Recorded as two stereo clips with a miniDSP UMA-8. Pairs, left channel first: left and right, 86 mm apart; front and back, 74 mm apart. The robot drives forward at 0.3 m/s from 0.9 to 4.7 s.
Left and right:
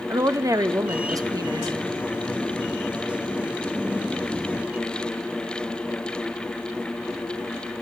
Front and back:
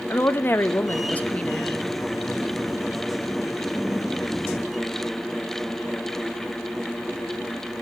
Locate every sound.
0.1 s a woman speaking: 55° right, 0.6 m; by 1.9 s 90° right, 0.5 m